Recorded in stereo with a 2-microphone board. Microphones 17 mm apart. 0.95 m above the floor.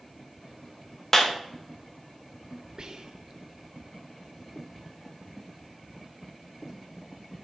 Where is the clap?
20° left (ahead or behind), 0.8 m.